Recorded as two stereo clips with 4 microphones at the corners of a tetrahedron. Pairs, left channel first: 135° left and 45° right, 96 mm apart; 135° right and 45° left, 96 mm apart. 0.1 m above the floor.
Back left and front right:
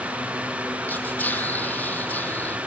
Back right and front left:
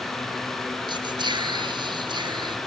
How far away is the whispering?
About 2 m.